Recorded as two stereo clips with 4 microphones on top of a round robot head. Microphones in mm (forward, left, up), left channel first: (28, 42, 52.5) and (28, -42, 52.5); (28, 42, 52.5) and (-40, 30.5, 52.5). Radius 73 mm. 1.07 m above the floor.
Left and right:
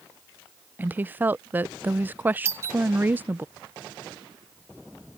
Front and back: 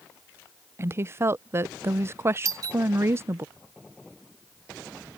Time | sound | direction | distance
0.8 | a woman speaking | 145° right | ?
2.5 | a doorbell | 145° right | ?